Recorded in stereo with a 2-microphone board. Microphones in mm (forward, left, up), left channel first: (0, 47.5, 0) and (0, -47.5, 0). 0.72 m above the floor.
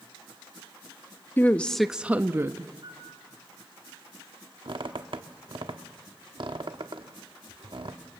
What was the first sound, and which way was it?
A woman speaking, 25° left (ahead or behind).